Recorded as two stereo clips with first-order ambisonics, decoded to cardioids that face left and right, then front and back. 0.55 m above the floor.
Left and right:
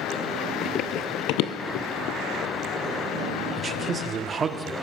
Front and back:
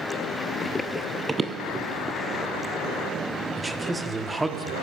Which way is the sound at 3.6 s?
105° right.